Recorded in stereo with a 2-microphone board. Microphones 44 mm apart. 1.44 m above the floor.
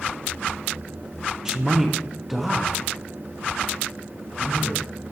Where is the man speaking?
15° right (ahead or behind), 0.6 m; by 4.9 s centre (ahead or behind), 2.5 m.